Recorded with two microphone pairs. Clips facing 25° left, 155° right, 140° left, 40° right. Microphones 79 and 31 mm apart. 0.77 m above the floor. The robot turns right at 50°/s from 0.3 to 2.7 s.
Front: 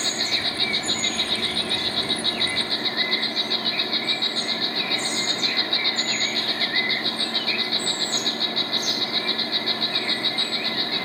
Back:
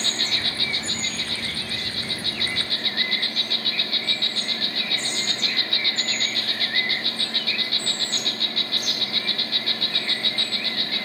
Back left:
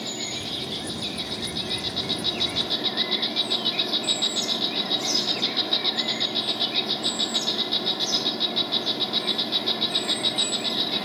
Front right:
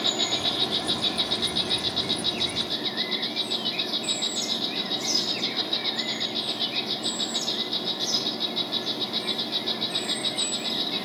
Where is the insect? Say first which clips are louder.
Front 1 dB, front right 6 dB; 40° right, 2 m; by 11.0 s 80° left, 2 m.